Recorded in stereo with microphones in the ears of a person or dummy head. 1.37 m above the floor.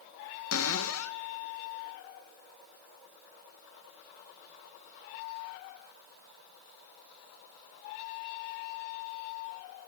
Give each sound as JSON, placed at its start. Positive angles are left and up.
{"t": 0.5, "sound": "a cupboard door", "side_deg": 90, "distance_m": 1.1}